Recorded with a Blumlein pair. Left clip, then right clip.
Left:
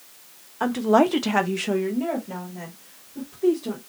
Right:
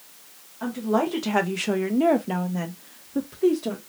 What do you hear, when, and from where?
0.6 s a woman speaking: 35° left, 0.9 m; by 3.8 s 65° right, 1.4 m